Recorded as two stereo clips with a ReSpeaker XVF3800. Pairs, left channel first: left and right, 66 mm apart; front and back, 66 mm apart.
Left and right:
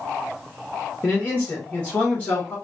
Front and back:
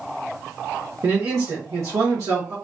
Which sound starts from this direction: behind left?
A man speaking, at 1.0 s.